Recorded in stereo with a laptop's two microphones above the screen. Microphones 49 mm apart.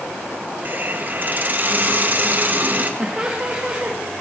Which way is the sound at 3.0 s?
20° right (ahead or behind).